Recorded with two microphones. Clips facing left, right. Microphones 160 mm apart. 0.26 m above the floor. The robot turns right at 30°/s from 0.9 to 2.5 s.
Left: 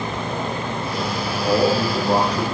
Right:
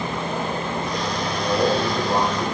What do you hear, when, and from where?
1.4 s a man speaking: 35° left (ahead or behind), 7.5 m; by 2.4 s 65° left (ahead or behind), 7.5 m